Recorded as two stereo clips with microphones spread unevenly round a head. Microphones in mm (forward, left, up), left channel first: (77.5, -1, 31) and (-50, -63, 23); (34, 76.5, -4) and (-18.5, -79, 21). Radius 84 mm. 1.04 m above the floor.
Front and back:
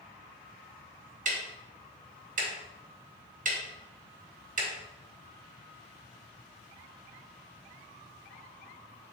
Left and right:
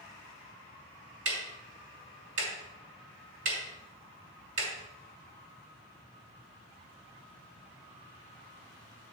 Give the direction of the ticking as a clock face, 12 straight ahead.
4 o'clock.